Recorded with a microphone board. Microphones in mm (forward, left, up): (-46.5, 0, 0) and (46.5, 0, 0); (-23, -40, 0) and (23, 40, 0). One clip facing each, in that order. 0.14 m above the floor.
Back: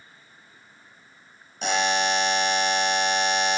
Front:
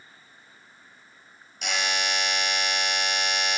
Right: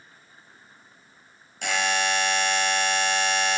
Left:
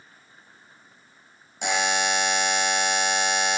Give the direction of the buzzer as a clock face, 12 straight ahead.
8 o'clock.